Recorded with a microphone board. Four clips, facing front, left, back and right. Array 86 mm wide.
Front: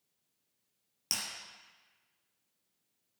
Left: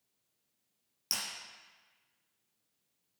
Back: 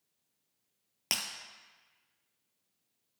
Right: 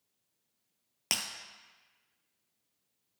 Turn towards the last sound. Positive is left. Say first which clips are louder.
# right 4 dB, back 4 dB
turn(degrees=-130)